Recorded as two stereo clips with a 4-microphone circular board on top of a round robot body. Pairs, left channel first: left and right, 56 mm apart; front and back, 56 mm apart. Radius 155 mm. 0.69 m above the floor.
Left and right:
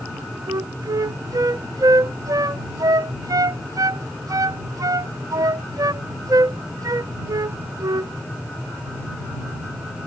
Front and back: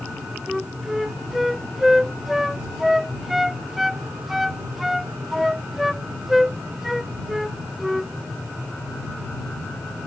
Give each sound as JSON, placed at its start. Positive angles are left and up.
{"t": 0.5, "sound": "a flute", "azimuth_deg": -95}